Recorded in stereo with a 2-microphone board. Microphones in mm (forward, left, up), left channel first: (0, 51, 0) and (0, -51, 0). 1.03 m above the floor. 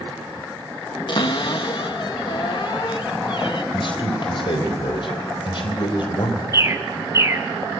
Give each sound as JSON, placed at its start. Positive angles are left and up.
{"t": 1.1, "sound": "a cupboard door", "side_deg": 55, "distance_m": 1.1}
{"t": 3.7, "sound": "a man speaking", "side_deg": 60, "distance_m": 4.0}
{"t": 6.5, "sound": "a bird", "side_deg": -30, "distance_m": 1.1}